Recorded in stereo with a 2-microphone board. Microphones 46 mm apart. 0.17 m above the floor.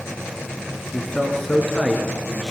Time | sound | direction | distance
0.9 | a man speaking | 10° left (ahead or behind) | 3 m